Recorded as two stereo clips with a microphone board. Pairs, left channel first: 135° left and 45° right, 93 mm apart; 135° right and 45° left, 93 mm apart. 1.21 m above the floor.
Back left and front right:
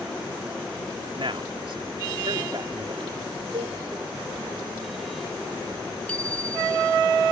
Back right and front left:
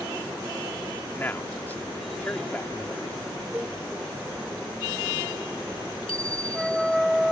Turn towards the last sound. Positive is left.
turn(degrees=-145)